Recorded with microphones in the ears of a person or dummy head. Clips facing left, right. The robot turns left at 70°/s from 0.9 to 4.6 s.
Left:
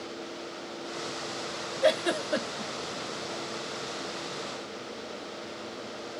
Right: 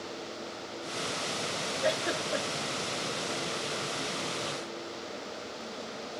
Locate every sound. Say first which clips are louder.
1.8 s a giggle: left 6 dB; 60° left (ahead or behind), 0.7 m; by 2.7 s 20° left (ahead or behind), 0.7 m